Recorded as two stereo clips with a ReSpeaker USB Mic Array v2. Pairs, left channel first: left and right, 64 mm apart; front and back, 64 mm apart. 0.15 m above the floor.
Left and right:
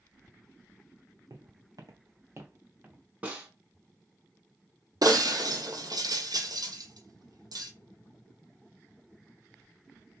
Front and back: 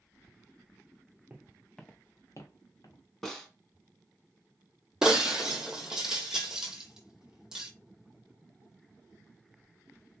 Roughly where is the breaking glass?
Right.